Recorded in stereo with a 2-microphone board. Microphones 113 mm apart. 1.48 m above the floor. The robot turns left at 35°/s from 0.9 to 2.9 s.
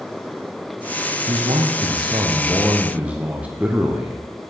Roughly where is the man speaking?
Right.